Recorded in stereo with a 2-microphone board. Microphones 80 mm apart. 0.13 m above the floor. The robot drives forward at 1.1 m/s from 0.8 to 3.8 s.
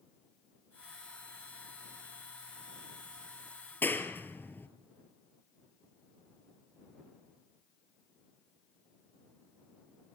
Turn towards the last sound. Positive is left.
turn(degrees=25)  # may be behind; listen again after turning